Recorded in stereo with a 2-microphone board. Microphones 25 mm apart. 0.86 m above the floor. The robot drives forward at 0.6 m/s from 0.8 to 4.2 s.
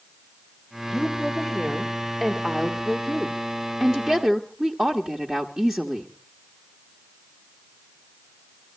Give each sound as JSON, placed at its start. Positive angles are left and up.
{"t": 0.9, "sound": "a woman speaking", "side_deg": -10, "distance_m": 3.0}